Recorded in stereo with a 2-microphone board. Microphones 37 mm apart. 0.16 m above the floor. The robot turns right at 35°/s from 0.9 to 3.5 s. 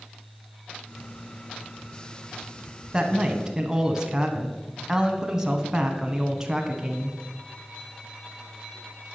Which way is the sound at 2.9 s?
20° right (ahead or behind).